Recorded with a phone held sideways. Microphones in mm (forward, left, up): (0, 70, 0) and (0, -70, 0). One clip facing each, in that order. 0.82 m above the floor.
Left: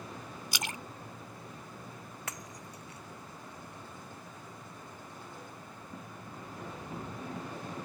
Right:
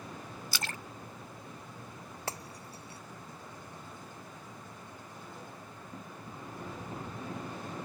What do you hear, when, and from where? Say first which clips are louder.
0.5 s a splash: left 1 dB; 20° left (ahead or behind)
2.3 s breaking glass: right 5 dB; 35° right (ahead or behind)